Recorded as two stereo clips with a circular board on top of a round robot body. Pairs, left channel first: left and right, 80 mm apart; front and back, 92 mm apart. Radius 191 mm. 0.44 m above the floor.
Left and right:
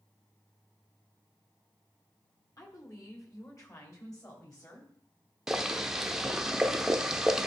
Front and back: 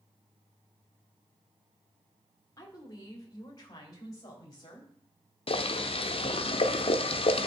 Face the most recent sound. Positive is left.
turn(degrees=-5)